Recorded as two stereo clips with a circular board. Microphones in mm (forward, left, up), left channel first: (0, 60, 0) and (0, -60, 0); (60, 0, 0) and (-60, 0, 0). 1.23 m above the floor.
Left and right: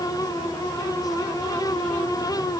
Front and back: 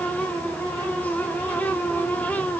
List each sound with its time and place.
Only background noise.